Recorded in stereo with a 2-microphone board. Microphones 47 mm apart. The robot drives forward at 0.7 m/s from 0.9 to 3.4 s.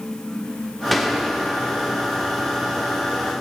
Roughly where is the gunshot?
Centre.